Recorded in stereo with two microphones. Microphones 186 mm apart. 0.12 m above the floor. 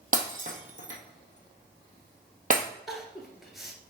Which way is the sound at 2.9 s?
Centre (ahead or behind).